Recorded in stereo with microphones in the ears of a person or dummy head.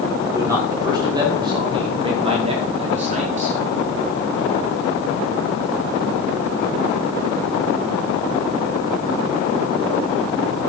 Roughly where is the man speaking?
Centre.